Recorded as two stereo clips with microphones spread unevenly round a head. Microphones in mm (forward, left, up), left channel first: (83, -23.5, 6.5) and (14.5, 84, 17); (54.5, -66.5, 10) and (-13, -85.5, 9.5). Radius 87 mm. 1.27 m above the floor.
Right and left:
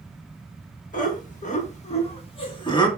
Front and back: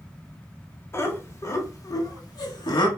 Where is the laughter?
40° right, 1.6 m; by 2.9 s straight ahead, 1.6 m.